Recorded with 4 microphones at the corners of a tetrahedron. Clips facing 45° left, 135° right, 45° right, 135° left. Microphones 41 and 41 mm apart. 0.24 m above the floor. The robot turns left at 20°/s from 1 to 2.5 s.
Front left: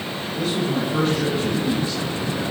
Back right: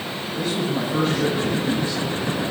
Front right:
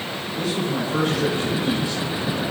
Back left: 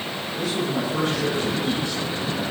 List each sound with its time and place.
0.4 s a man speaking: 35° right, 1.7 m; by 2.4 s 65° right, 1.7 m